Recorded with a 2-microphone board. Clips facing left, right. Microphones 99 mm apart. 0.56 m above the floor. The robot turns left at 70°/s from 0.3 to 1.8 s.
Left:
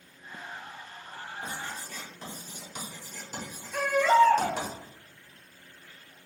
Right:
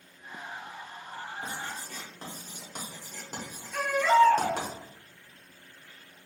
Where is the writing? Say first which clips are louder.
Even; 30° right (ahead or behind), 1.7 m; by 4.7 s 50° right (ahead or behind), 1.7 m.